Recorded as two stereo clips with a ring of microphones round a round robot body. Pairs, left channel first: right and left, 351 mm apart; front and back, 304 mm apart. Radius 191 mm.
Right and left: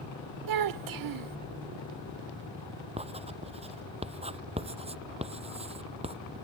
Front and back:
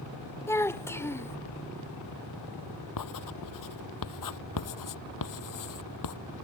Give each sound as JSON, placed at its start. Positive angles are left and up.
{"t": 0.5, "sound": "a child speaking", "azimuth_deg": 80}
{"t": 3.0, "sound": "writing", "azimuth_deg": 15}